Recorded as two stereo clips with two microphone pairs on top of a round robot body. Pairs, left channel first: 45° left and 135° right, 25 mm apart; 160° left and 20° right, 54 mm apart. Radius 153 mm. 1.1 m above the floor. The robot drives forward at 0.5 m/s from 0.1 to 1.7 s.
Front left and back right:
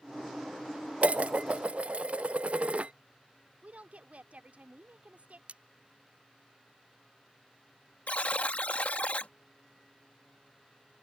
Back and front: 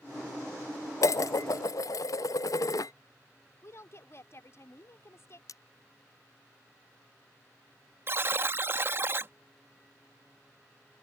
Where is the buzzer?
30° left.